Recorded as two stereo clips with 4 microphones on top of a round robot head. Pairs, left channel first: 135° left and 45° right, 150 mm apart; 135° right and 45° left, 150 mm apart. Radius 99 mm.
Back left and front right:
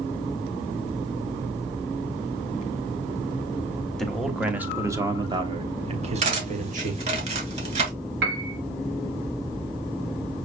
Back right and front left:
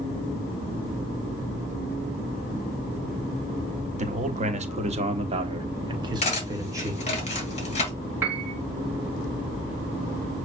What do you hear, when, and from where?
4.0 s a man speaking: 50° left, 1.2 m; by 7.0 s 25° right, 1.7 m
6.2 s cutlery clinking: 90° right, 2.5 m
8.2 s a piano: 35° right, 1.4 m